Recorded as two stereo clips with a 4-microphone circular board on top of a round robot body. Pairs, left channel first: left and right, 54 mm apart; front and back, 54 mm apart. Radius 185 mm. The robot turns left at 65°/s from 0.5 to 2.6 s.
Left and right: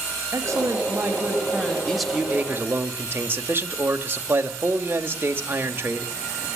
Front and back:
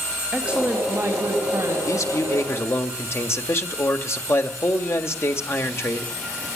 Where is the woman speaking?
110° right, 4 m; by 1.8 s 165° left, 4 m.